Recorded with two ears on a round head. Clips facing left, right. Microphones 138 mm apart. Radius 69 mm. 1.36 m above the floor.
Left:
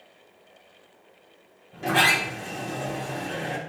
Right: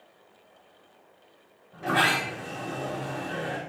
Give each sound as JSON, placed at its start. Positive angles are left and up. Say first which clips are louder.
{"t": 1.7, "sound": "a sliding door", "louder": "left 2 dB", "side_deg": 30, "distance_m": 3.0}